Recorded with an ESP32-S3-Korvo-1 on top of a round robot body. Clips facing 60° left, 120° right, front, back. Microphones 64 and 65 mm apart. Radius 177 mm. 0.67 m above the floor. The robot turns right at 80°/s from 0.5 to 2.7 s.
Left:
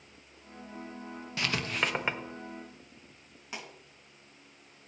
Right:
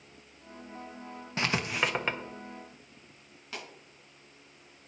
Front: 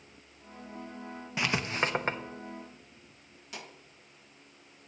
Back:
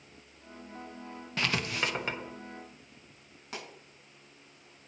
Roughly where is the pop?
Behind left.